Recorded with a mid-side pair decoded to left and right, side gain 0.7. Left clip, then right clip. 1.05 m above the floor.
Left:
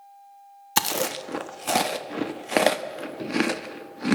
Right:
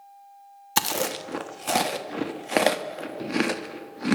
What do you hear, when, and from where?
0.8 s chewing: straight ahead, 1.2 m